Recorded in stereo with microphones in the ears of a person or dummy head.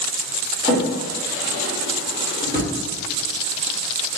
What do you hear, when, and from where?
0.6 s a drawer: 15° right (ahead or behind), 1.3 m